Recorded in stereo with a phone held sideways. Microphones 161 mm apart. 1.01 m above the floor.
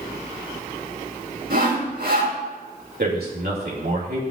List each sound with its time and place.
1.5 s sawing: 75° right (ahead or behind), 3 m
3.0 s a man speaking: 80° right, 2.5 m